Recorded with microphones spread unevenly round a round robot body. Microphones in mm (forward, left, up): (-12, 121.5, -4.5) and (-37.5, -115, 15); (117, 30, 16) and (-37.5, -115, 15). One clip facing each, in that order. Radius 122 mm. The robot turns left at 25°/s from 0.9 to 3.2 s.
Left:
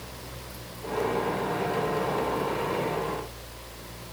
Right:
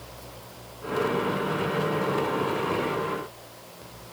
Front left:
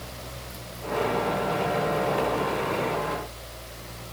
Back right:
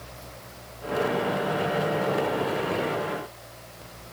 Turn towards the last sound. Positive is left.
No sound to turn to.